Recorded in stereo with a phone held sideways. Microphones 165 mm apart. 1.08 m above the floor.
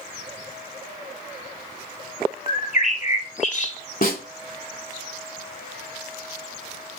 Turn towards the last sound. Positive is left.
turn(degrees=65)  # may be behind; listen again after turning